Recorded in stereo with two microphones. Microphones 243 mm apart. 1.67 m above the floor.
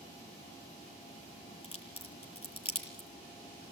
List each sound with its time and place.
1.6 s a crack: 20° left (ahead or behind), 6.5 m